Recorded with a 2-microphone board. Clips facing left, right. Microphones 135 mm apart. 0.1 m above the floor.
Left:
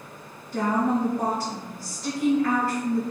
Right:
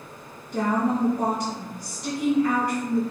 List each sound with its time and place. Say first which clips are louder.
0.5 s a woman speaking: even; 20° right (ahead or behind), 1.4 m